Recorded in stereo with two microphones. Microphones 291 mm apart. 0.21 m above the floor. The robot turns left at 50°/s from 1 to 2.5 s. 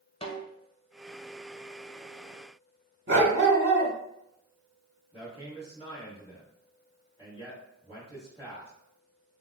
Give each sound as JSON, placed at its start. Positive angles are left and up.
{"t": 0.2, "sound": "a snare drum", "side_deg": 20, "distance_m": 1.0}
{"t": 3.1, "sound": "a dog barking", "side_deg": -40, "distance_m": 0.8}
{"t": 5.1, "sound": "a man speaking", "side_deg": 20, "distance_m": 1.9}